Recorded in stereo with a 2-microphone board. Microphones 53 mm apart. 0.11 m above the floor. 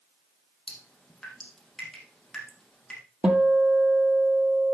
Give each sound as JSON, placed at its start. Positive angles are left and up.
{"t": 0.7, "sound": "dripping", "side_deg": 5, "distance_m": 4.0}
{"t": 3.2, "sound": "a guitar", "side_deg": -20, "distance_m": 1.2}